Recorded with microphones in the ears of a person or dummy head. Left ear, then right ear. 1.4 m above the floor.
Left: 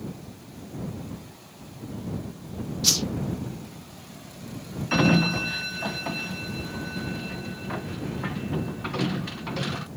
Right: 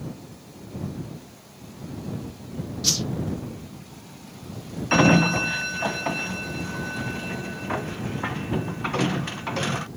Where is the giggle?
No giggle in this recording.